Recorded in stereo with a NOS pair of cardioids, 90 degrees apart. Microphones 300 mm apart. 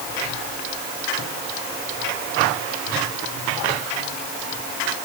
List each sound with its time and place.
Only background noise.